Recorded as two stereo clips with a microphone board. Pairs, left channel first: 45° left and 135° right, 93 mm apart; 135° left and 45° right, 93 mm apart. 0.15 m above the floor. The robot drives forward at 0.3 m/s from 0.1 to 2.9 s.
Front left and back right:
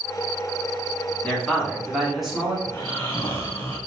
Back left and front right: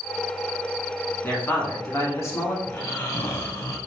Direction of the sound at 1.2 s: 105° left.